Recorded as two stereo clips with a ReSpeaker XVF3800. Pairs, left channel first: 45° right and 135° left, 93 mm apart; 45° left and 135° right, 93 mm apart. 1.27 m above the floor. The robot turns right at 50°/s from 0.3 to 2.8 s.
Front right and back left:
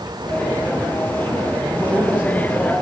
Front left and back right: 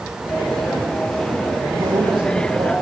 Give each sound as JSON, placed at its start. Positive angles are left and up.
{"t": 1.6, "sound": "a man speaking", "azimuth_deg": -150, "distance_m": 1.7}